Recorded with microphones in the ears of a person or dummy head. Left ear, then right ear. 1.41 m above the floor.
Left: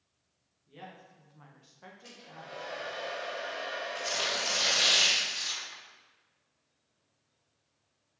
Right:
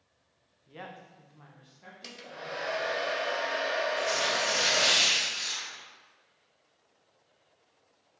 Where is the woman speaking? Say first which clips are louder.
Right 4 dB; 40° right (ahead or behind), 0.9 m; by 3.0 s 80° left, 1.6 m.